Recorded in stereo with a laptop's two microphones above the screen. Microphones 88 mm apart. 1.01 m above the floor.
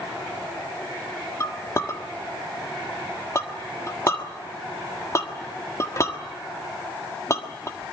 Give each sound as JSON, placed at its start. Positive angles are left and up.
{"t": 1.4, "sound": "a clink", "side_deg": 35, "distance_m": 1.4}